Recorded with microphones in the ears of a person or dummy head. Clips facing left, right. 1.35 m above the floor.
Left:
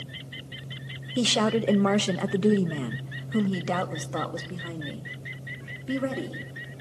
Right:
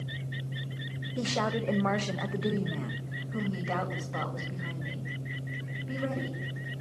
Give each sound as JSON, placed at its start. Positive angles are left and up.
{"t": 1.2, "sound": "a woman speaking", "side_deg": 45, "distance_m": 1.1}